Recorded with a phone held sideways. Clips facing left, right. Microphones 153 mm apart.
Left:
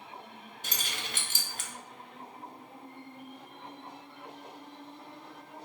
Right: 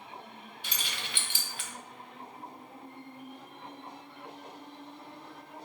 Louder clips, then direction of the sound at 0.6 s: Left 2 dB; 45° left (ahead or behind).